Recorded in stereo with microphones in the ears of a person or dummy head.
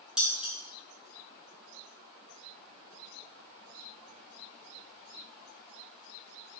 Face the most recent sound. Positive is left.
turn(degrees=-5)  # may be behind; listen again after turning